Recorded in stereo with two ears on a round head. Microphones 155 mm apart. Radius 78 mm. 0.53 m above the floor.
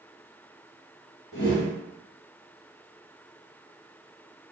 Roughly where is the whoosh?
Left.